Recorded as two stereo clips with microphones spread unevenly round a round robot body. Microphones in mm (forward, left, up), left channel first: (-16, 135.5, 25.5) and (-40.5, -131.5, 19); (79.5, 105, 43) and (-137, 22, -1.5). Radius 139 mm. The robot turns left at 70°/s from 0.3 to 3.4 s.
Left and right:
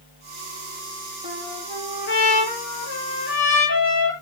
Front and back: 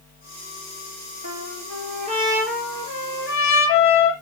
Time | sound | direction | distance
1.2 | a trumpet | 165° right | 5 m